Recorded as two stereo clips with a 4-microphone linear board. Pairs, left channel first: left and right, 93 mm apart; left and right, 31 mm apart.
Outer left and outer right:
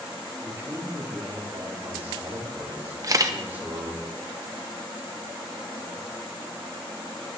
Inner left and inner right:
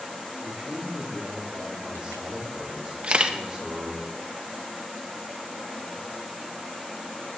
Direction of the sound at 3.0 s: 35° right (ahead or behind).